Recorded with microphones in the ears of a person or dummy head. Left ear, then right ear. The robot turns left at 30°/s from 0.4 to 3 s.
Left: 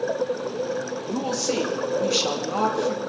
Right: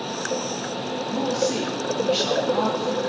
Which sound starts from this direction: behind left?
A woman speaking, at 1.1 s.